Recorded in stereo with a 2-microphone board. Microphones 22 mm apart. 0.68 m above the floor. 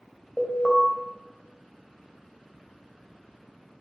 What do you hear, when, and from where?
0.4 s an alarm: 5° left (ahead or behind), 3 m